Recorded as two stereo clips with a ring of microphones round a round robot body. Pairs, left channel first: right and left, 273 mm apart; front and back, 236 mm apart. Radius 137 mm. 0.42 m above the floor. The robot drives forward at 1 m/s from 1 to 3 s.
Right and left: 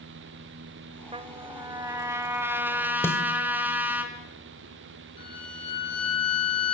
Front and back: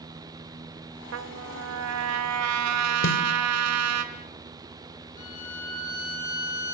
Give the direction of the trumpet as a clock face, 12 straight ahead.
7 o'clock.